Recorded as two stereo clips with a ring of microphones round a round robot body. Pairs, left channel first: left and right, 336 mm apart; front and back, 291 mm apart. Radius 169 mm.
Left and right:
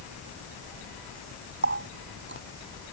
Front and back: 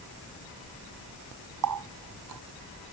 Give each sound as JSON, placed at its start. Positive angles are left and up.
{"t": 1.6, "sound": "a running tap", "azimuth_deg": -145}